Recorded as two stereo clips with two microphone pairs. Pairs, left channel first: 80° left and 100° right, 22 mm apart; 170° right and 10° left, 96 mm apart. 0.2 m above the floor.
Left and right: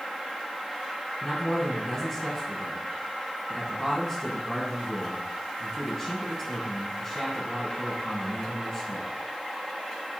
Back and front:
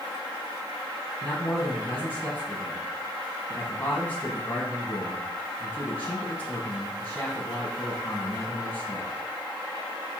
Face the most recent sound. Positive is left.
turn(degrees=135)